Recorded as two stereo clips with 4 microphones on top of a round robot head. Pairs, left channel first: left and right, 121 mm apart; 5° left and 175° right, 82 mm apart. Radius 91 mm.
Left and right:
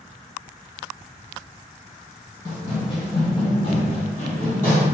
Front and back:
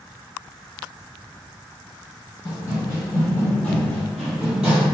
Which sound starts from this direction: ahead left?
Running footsteps, at 2.5 s.